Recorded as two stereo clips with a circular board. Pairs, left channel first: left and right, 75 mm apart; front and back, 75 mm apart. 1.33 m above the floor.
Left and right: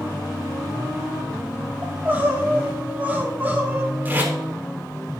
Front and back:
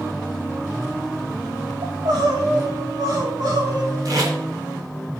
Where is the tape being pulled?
155° right, 3.5 m.